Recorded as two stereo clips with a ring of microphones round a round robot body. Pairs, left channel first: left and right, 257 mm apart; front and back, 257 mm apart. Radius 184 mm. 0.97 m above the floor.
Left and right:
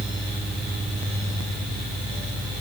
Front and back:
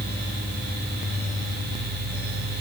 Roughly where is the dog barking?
I don't hear a dog barking.